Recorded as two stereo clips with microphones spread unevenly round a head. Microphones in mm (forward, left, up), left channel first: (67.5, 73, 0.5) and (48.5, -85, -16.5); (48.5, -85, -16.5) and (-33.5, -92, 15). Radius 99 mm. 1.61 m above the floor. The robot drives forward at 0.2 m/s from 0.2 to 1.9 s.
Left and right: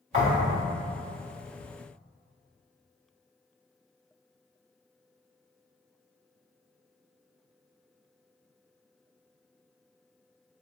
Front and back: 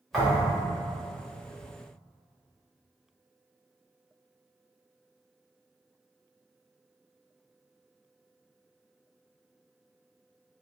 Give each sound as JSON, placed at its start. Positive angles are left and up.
{"t": 0.1, "sound": "a thud", "azimuth_deg": -115, "distance_m": 1.4}